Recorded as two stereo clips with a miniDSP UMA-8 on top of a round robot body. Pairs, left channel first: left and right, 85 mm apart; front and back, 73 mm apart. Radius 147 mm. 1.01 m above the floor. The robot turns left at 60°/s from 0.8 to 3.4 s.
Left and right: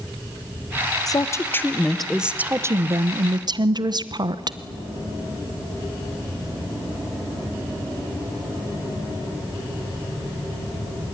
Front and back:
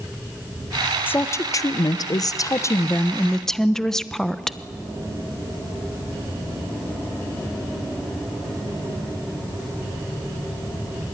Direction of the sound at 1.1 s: 60° left.